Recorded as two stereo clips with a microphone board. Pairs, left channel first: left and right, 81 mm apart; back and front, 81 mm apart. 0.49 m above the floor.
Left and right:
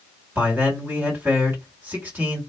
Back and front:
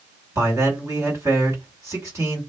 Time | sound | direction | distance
0.3 | a man speaking | 30° right | 1.8 m